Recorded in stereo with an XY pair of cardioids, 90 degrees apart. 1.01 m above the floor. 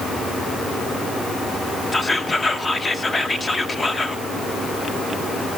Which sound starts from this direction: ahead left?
Whispering, at 1.9 s.